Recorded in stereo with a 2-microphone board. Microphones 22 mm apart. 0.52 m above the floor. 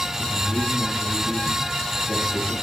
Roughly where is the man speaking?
Left.